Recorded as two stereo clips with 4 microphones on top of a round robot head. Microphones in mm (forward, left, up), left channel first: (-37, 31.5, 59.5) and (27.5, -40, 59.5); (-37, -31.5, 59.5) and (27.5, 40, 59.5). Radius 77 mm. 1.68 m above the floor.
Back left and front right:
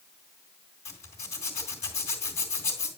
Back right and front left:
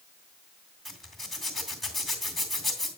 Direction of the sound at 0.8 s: 140° left.